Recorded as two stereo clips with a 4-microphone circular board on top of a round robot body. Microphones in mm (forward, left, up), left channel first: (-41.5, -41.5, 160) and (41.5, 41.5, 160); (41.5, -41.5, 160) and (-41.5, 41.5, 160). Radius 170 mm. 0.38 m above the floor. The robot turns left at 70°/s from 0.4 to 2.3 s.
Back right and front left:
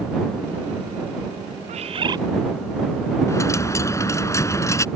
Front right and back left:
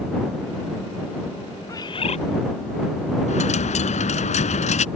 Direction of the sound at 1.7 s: 20° left.